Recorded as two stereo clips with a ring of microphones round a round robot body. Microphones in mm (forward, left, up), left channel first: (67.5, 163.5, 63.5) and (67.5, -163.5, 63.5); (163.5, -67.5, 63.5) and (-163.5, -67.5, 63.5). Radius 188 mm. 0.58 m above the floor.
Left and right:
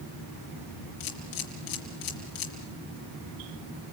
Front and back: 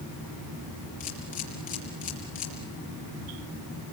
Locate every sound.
1.0 s a camera shutter: 70° left, 3.5 m